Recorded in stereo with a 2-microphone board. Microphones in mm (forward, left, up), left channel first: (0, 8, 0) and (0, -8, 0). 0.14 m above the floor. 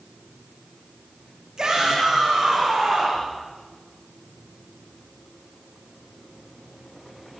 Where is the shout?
35° right (ahead or behind), 8.5 m; by 3.3 s 40° right (ahead or behind), 11 m.